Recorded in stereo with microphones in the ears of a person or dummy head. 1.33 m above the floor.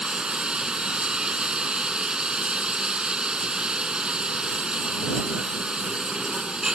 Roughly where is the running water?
Centre.